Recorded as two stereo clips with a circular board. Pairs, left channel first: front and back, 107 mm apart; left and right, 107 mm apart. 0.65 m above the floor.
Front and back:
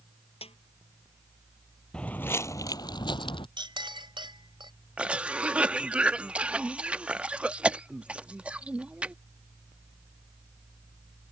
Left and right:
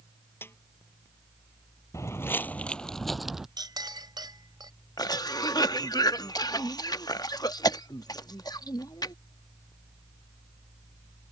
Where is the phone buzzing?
I don't hear a phone buzzing.